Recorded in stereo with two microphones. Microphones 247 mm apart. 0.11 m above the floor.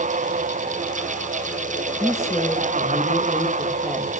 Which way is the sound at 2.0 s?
15° left (ahead or behind).